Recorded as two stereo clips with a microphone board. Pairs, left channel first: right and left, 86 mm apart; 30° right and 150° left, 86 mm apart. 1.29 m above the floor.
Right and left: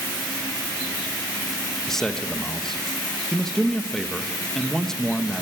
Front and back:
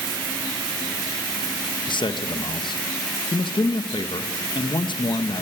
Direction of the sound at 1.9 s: 5° right.